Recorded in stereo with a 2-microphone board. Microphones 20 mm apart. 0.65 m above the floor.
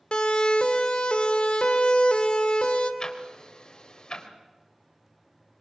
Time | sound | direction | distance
0.1 | a siren | 60° left (ahead or behind) | 2.5 m
3.0 | ticking | 40° left (ahead or behind) | 3 m